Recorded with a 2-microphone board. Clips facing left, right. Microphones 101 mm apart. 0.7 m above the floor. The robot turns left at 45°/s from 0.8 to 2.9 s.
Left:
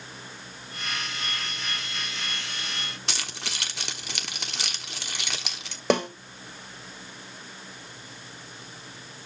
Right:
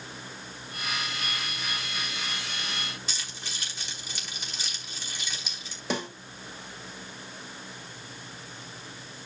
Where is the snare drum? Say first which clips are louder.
Left 8 dB; 70° left (ahead or behind), 3 m.